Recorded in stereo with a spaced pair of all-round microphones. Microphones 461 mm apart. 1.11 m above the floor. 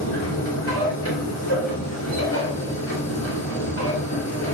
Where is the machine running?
35° left (ahead or behind), 3.5 m.